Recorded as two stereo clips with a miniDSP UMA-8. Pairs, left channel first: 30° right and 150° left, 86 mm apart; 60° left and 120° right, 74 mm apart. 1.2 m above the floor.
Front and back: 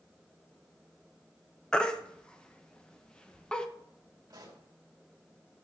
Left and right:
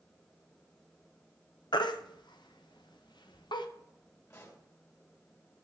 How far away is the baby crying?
About 0.8 m.